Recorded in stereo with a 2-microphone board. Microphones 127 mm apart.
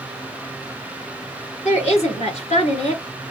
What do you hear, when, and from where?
1.6 s a woman speaking: 55° left (ahead or behind), 2.5 m